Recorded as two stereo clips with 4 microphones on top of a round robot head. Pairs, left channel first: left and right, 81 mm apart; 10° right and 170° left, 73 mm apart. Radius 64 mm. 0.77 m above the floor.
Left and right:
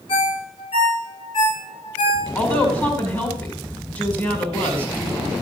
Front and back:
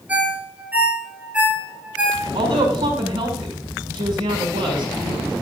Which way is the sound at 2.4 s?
160° left.